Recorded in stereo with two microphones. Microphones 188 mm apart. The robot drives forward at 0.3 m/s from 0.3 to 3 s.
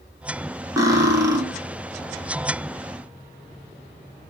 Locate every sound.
0.8 s cutlery clinking: 15° right (ahead or behind), 0.8 m; by 1.4 s 20° right (ahead or behind), 0.7 m